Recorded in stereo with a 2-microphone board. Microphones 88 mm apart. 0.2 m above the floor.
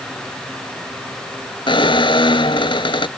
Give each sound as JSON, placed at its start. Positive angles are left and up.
{"t": 1.7, "sound": "a squeak", "side_deg": 75}